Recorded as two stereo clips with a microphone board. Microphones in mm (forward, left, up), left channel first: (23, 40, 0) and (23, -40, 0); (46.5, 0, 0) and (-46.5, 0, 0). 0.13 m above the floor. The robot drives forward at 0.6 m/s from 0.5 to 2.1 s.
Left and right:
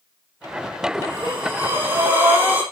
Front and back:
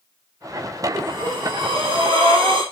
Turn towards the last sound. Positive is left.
turn(degrees=-150)